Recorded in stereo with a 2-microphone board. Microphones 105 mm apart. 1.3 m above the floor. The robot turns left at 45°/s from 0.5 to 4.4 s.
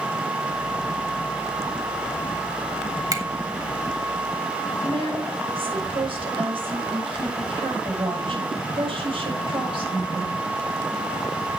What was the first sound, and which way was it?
A finger snap, 40° right (ahead or behind).